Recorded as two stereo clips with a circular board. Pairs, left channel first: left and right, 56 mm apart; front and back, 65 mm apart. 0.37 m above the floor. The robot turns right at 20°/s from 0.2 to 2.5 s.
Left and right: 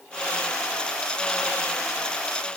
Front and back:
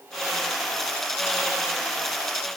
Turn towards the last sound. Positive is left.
No sound to turn to.